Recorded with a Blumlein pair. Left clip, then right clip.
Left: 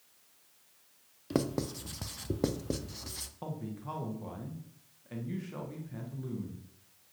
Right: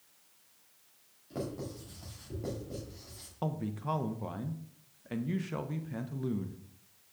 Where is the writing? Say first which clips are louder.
Left 6 dB; 50° left, 0.7 m.